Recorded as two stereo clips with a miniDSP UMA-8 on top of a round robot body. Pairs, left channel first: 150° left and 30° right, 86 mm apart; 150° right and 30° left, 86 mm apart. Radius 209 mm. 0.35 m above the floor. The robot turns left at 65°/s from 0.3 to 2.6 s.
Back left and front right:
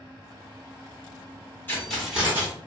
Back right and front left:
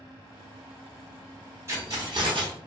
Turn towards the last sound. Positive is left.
turn(degrees=25)